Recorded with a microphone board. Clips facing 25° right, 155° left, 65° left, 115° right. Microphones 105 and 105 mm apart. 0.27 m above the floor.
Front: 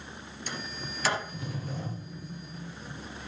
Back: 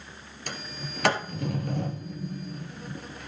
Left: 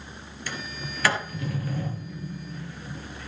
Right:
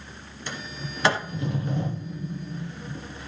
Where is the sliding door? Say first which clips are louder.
Back 1 dB, even; straight behind, 2.5 m.